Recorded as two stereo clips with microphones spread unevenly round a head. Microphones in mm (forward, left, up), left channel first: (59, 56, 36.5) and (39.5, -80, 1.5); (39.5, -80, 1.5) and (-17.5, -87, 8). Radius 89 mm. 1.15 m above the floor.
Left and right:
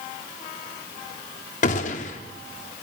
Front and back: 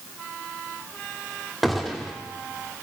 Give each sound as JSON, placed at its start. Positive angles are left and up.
{"t": 1.6, "sound": "a gunshot", "azimuth_deg": 100, "distance_m": 1.1}